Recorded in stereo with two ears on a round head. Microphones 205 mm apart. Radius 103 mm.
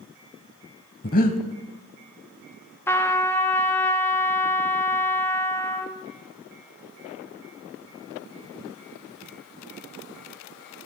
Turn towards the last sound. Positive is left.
turn(degrees=10)  # may be behind; listen again after turning